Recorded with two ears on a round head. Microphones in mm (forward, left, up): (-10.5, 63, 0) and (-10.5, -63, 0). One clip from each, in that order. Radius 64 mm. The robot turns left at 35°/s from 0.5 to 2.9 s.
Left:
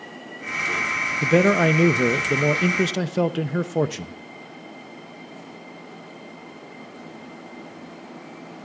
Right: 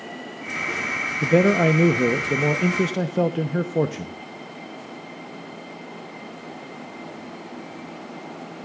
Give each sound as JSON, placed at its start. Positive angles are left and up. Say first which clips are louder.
{"t": 1.2, "sound": "a man speaking", "louder": "even", "azimuth_deg": 135, "distance_m": 0.6}